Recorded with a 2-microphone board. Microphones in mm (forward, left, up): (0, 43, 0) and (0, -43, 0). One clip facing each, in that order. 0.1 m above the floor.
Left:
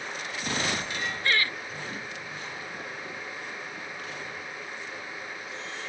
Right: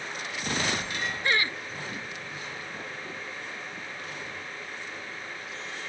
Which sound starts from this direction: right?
Laughter, at 1.2 s.